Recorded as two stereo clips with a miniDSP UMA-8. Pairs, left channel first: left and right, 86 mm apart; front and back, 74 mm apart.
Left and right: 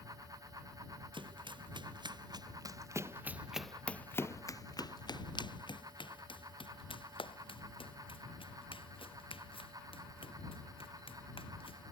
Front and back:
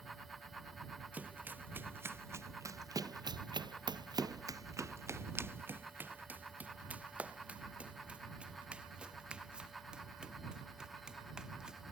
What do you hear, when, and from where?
1.1 s running footsteps: 115° right; by 11.9 s 100° left